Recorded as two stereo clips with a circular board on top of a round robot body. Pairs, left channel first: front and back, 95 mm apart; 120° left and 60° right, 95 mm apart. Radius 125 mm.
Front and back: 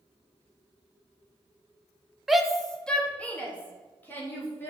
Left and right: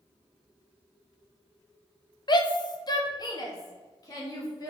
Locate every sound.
2.3 s a shout: 95° left, 1.2 m; by 4.7 s 70° left, 3 m